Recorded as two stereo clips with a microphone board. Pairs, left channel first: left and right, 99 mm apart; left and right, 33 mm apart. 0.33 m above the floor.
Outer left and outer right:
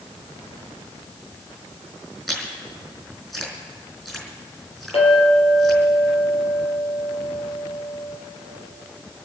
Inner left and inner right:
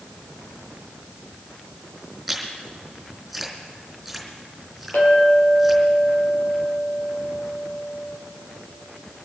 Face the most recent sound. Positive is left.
turn(degrees=80)